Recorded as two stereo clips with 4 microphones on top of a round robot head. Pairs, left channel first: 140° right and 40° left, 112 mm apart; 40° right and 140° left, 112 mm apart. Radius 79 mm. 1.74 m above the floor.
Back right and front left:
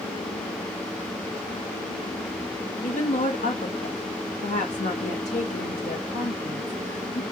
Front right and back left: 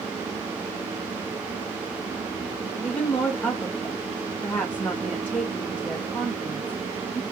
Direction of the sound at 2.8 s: 120° right.